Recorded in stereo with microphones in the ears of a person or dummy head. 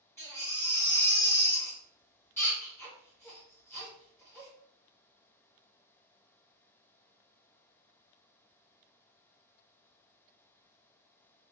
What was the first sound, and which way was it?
A baby crying, 10° left (ahead or behind).